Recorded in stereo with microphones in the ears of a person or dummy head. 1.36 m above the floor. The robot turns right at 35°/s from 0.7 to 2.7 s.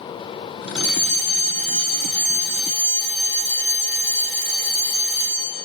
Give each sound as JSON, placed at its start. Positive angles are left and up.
{"t": 0.8, "sound": "a fire alarm", "azimuth_deg": 55, "distance_m": 6.5}